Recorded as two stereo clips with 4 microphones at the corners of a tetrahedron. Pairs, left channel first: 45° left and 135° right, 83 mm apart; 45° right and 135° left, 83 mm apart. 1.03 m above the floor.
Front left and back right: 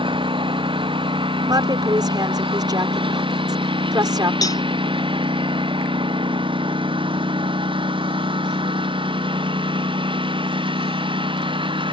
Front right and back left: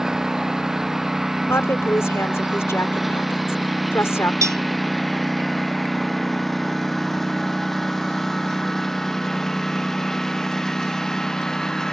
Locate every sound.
0.0 s a lawn mower: 140° right; by 11.9 s 130° right
1.5 s a woman speaking: 100° right
4.4 s a cowbell: 85° left